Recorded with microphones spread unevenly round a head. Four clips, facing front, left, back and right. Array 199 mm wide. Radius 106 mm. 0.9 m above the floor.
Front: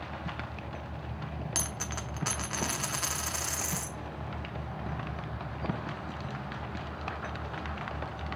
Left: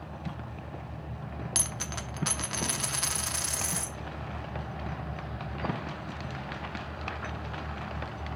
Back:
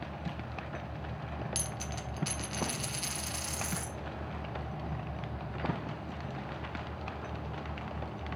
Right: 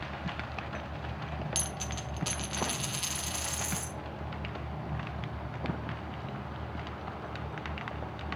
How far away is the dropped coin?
About 0.7 m.